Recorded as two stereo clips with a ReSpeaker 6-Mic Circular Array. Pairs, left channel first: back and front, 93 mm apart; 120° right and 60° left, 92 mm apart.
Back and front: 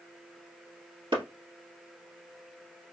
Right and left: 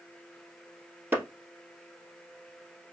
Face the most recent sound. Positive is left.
turn(degrees=-5)